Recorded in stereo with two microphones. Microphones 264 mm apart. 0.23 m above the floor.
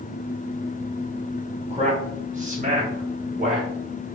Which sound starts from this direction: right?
A man speaking, at 1.7 s.